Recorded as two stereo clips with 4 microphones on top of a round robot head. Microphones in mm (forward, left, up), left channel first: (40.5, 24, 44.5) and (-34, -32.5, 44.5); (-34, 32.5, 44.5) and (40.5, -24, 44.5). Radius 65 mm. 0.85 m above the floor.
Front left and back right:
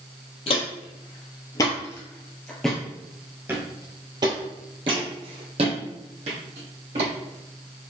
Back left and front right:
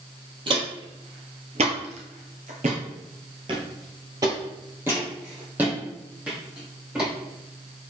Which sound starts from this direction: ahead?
Footsteps, at 0.5 s.